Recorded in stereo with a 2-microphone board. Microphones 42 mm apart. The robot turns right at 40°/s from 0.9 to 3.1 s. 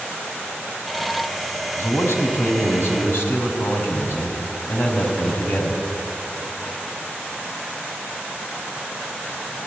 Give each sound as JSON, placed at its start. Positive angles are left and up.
{"t": 1.8, "sound": "a man speaking", "azimuth_deg": 65, "distance_m": 5.0}